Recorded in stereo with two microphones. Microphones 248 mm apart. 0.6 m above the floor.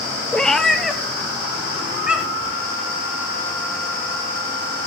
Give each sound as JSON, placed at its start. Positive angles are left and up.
{"t": 0.3, "sound": "a cat meowing", "side_deg": 5, "distance_m": 1.2}